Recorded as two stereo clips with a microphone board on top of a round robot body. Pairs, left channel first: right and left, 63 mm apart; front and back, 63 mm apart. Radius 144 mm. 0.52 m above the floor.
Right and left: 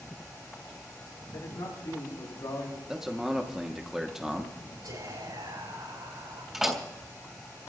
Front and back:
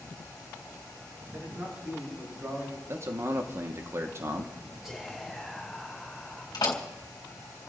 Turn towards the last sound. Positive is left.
turn(degrees=5)